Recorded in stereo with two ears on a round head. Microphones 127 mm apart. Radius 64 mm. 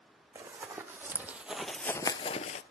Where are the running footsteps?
25° right (ahead or behind), 1.7 m; by 2.6 s 50° left (ahead or behind), 0.6 m.